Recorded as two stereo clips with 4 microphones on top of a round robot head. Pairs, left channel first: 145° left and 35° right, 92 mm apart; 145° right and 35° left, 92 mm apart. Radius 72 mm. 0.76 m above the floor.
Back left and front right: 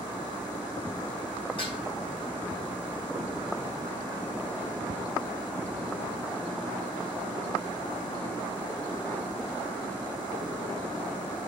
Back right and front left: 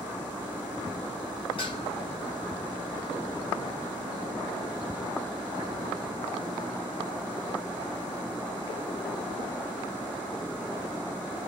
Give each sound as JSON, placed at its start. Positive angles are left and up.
{"t": 1.6, "sound": "dishes clattering", "azimuth_deg": 180, "distance_m": 5.0}